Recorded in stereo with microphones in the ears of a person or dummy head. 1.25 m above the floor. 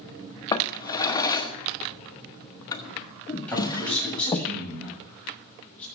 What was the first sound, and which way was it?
A drawer, 20° left (ahead or behind).